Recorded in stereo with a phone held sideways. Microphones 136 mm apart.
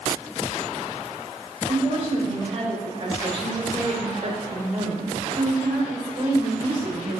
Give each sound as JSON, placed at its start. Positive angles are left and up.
{"t": 1.7, "sound": "a woman speaking", "side_deg": -50, "distance_m": 5.0}